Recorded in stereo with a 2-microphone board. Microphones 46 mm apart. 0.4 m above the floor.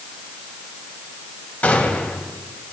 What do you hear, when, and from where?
1.6 s a gunshot: 35° left (ahead or behind), 2.5 m